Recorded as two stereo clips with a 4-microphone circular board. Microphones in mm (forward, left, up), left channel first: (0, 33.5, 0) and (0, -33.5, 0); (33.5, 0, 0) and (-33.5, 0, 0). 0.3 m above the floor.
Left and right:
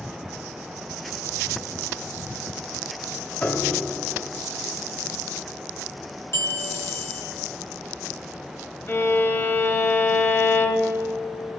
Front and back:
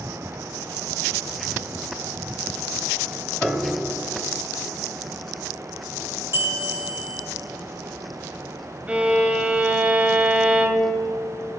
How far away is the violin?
About 1.3 m.